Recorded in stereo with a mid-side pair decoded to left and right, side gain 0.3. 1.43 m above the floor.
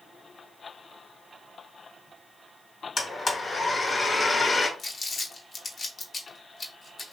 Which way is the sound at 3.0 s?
45° left.